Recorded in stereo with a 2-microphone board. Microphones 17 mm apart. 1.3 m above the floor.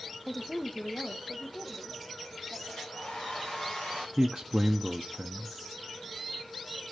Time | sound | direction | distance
0.3 | a woman speaking | 10° left (ahead or behind) | 0.8 m
2.7 | a hair dryer | 85° left | 4.5 m
4.2 | a man speaking | 40° right (ahead or behind) | 0.6 m